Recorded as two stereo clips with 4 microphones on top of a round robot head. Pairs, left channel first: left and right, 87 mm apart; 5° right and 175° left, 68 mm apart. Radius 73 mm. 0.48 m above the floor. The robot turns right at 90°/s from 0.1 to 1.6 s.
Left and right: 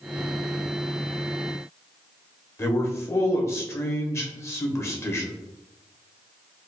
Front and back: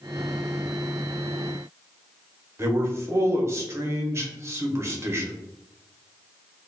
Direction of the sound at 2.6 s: 140° left.